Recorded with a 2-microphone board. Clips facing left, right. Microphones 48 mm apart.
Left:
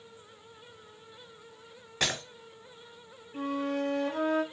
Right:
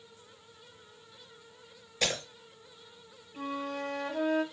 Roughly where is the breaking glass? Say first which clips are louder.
Left 1 dB; left.